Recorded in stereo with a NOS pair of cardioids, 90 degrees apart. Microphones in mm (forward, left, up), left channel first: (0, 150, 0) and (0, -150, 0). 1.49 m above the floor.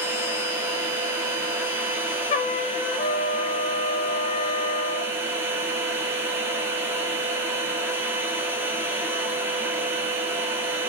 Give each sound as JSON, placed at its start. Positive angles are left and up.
{"t": 0.0, "sound": "a machine running", "azimuth_deg": -5, "distance_m": 0.8}
{"t": 2.3, "sound": "a trumpet", "azimuth_deg": 25, "distance_m": 0.6}